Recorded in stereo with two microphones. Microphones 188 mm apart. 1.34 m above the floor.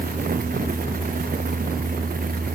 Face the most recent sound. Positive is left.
No sound to turn to.